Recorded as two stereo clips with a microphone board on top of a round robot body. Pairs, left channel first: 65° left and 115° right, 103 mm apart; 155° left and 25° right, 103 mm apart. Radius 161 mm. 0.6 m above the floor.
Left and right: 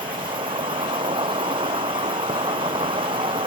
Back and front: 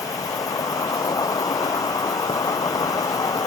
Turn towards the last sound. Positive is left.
turn(degrees=-145)